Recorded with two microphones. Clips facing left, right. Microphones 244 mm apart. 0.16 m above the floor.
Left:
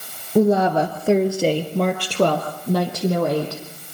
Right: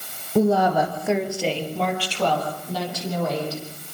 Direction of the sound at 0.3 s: 15° left (ahead or behind).